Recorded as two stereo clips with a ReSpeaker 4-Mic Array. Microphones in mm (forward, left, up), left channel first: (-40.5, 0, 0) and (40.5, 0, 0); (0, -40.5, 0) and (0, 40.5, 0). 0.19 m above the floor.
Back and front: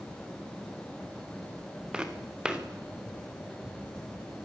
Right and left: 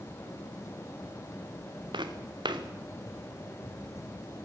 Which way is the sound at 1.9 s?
80° left.